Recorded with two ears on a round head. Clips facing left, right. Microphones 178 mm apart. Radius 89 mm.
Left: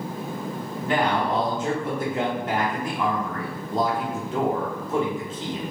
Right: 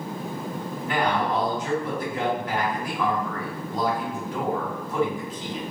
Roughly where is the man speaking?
Left.